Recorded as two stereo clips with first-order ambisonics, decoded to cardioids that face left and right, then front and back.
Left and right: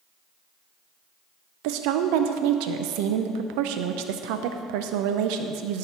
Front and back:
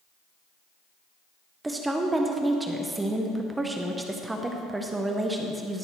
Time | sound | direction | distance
1.6 | a woman speaking | 100° right | 0.6 m